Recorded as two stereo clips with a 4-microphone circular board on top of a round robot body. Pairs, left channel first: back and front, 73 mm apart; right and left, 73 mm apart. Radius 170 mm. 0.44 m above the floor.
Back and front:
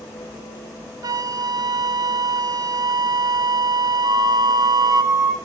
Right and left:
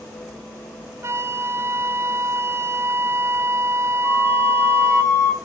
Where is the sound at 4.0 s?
25° right, 7 m.